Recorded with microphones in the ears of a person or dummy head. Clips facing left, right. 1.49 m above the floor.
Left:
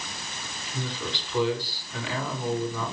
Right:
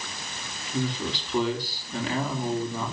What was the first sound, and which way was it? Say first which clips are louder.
A man speaking: right 5 dB; 40° right (ahead or behind).